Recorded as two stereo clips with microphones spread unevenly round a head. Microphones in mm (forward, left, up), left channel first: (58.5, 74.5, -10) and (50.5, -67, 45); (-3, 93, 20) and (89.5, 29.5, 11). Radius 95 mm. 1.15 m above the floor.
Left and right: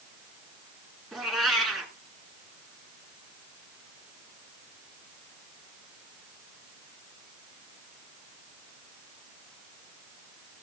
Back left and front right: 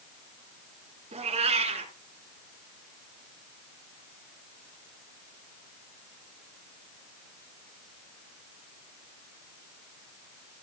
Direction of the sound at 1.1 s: 15° right.